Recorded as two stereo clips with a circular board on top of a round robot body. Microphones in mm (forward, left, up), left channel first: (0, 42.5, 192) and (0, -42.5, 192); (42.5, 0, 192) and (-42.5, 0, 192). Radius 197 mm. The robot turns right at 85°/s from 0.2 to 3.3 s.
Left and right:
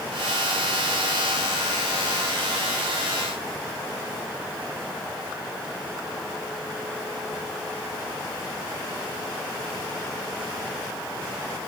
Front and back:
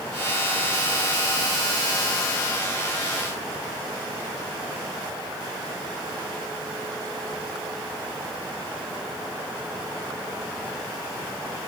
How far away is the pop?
No pop in this recording.